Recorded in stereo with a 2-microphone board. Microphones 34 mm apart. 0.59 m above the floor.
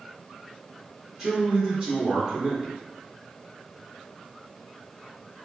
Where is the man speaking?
10° right (ahead or behind), 1.1 m.